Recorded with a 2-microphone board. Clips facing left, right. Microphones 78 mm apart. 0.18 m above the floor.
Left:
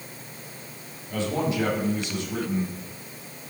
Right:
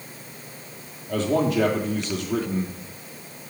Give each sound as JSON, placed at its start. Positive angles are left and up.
{"t": 1.1, "sound": "a man speaking", "side_deg": -75, "distance_m": 4.0}